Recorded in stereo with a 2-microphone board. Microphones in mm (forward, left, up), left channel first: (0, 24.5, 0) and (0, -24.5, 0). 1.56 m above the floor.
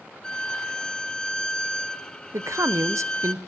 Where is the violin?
15° left (ahead or behind), 0.5 m.